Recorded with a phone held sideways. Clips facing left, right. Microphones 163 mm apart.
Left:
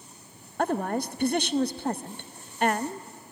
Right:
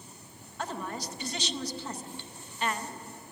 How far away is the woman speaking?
About 0.6 m.